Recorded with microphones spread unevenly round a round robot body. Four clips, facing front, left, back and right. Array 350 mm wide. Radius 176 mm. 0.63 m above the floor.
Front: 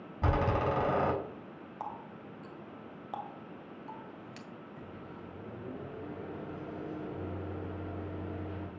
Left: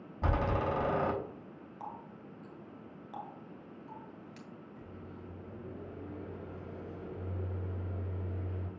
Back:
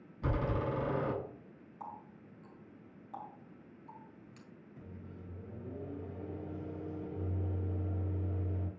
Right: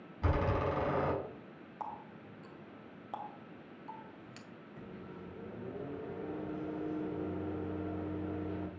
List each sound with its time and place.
0.2 s a door slam: 25° left, 4 m
1.8 s a running tap: 25° right, 1.7 m
4.8 s a microwave: 60° right, 2.5 m